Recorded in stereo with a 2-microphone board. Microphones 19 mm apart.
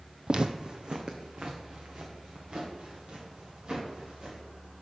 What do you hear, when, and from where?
0.3 s footsteps: 50° right (ahead or behind), 0.5 m; by 4.4 s 55° right (ahead or behind), 4.5 m